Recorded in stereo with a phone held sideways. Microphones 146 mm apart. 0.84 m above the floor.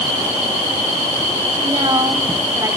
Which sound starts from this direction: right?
A woman speaking, at 1.6 s.